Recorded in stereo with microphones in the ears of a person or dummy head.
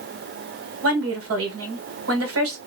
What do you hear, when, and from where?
0.8 s a woman speaking: 75° right (ahead or behind), 1.3 m